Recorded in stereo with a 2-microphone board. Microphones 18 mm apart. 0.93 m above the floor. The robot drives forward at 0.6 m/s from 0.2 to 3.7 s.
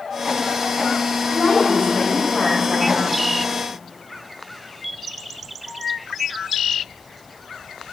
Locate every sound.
1.3 s a woman speaking: 85° left, 3.5 m; by 3.0 s 75° left (ahead or behind), 3.5 m